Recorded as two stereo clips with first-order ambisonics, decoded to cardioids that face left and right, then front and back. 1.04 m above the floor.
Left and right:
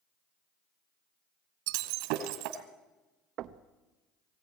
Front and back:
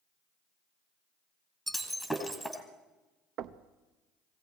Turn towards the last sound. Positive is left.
turn(degrees=-135)